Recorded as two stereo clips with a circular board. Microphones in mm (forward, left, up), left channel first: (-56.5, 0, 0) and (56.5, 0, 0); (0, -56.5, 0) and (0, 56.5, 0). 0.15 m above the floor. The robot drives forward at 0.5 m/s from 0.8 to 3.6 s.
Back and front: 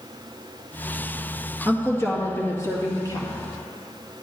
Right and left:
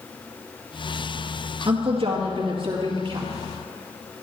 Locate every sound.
1.6 s a woman speaking: 110° left, 2 m; by 3.3 s 130° left, 2.5 m